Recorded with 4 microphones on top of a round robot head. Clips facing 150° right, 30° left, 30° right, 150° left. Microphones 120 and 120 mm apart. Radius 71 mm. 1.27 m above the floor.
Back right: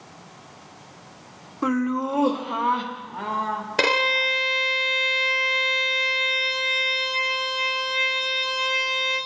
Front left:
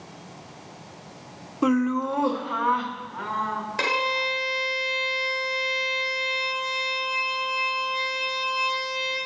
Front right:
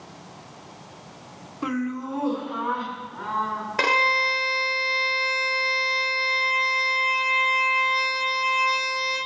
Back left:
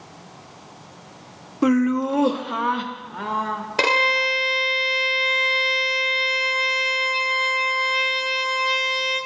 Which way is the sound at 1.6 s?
105° left.